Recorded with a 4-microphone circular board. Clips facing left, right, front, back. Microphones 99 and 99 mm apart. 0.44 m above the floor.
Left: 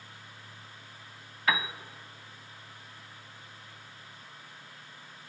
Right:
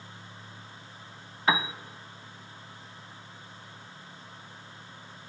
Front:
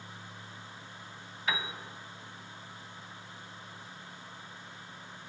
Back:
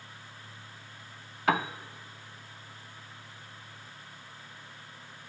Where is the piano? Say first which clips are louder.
Right 3 dB, back 8 dB; 155° right, 0.6 m.